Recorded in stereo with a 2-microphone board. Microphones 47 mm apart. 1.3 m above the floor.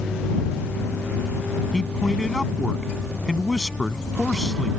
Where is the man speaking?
5° left (ahead or behind).